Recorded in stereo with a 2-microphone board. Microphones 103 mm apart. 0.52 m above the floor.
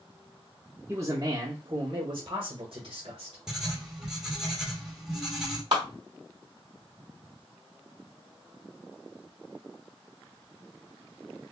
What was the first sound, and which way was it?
A man speaking, 25° right (ahead or behind).